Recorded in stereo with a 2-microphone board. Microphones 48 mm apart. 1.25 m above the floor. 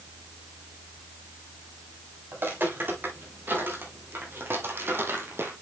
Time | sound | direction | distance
2.3 | footsteps | 45° right (ahead or behind) | 4.5 m